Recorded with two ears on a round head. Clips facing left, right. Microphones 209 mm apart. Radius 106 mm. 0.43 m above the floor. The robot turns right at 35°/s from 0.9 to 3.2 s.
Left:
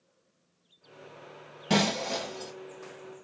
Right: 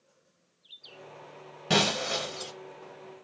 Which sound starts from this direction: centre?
Breaking glass, at 1.7 s.